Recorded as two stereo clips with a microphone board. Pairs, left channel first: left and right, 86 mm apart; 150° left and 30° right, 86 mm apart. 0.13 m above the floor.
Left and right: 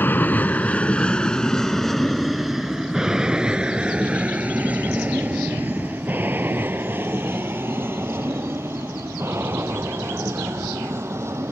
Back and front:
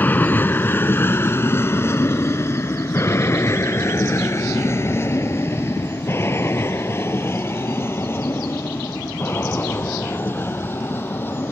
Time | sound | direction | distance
0.0 | an aircraft | 115° left | ?